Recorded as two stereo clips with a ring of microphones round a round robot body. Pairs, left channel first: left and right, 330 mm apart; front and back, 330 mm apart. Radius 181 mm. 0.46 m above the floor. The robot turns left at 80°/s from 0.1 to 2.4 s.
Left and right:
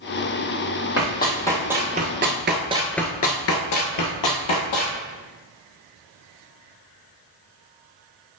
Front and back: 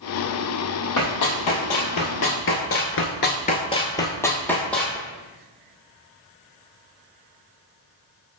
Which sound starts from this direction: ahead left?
Running footsteps, at 1.0 s.